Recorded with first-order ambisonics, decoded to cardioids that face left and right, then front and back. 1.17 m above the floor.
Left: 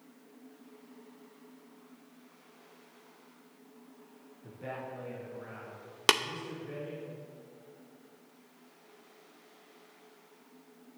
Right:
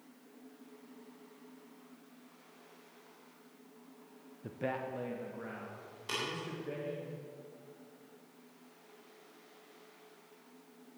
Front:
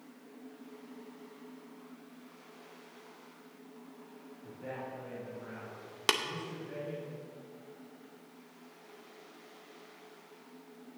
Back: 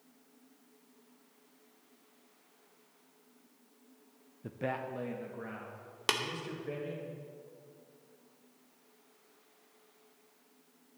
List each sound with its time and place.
4.4 s a man speaking: 145° right, 0.5 m
6.1 s tapping: 80° left, 0.6 m